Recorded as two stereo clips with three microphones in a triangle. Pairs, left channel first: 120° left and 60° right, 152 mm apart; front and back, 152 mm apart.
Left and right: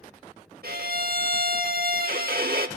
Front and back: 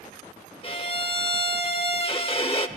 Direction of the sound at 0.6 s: 50° right.